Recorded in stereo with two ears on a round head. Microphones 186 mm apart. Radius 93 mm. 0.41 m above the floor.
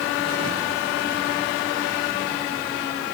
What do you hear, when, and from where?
Only background noise.